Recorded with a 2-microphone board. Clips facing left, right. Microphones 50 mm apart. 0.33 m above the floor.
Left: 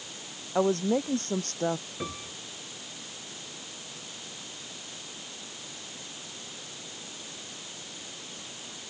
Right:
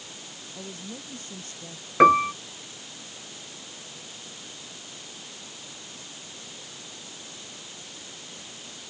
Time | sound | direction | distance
0.6 | a woman speaking | 65° left (ahead or behind) | ?
2.0 | a piano | 70° right (ahead or behind) | ?